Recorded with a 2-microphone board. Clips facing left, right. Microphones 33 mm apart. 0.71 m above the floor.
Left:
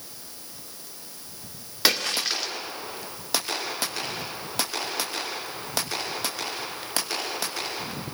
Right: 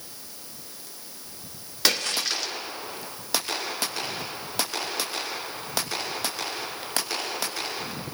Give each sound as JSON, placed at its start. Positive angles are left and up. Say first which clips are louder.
{"t": 1.9, "sound": "a splash", "louder": "left 1 dB", "side_deg": 10, "distance_m": 2.0}